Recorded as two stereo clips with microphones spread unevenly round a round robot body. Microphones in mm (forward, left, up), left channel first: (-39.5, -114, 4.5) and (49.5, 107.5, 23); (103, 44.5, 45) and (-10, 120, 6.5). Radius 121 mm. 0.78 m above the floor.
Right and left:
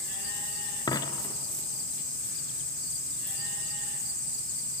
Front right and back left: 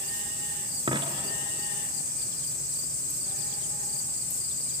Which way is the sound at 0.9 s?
170° right.